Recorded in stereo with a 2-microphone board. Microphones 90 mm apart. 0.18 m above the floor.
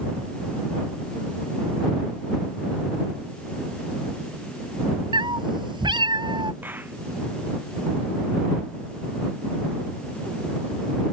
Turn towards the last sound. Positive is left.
turn(degrees=-20)  # may be behind; listen again after turning